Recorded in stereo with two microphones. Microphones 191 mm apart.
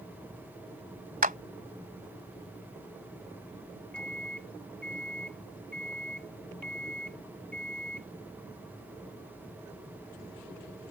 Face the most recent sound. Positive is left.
turn(degrees=5)  # may be behind; listen again after turning